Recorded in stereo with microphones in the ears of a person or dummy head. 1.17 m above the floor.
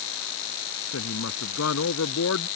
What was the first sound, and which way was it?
A woman speaking, 85° left.